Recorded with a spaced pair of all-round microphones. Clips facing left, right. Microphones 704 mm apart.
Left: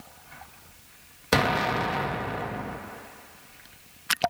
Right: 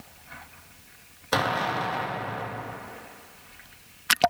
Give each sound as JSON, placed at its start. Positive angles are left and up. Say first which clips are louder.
{"t": 1.3, "sound": "an explosion", "louder": "left 3 dB", "side_deg": 55, "distance_m": 0.7}